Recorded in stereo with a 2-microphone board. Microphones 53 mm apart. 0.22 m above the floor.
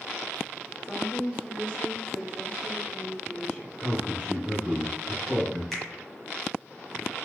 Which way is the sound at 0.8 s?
15° left (ahead or behind).